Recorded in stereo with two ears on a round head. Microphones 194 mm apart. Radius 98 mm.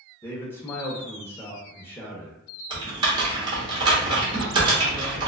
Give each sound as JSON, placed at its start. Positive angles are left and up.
{"t": 0.2, "sound": "a man speaking", "side_deg": 10, "distance_m": 0.6}
{"t": 2.7, "sound": "typing on a keyboard", "side_deg": -20, "distance_m": 0.9}